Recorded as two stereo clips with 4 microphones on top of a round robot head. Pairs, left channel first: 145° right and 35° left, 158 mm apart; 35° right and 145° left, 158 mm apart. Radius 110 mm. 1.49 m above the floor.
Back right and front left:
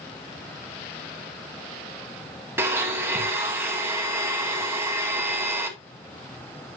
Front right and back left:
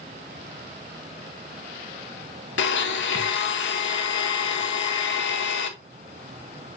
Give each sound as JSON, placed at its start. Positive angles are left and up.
{"t": 2.6, "sound": "a blender", "azimuth_deg": -40, "distance_m": 1.0}